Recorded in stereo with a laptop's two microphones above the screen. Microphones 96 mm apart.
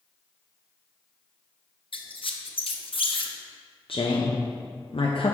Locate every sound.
1.9 s a squeak: 65° left (ahead or behind), 0.6 m
3.9 s a woman speaking: 70° left (ahead or behind), 0.7 m